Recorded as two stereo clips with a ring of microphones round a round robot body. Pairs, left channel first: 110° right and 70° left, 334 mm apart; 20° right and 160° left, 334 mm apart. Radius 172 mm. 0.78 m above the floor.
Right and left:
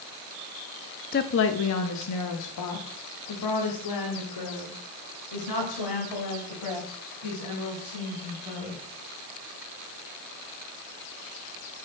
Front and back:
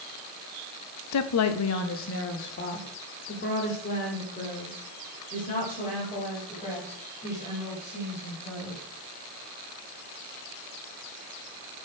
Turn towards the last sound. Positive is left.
turn(degrees=-95)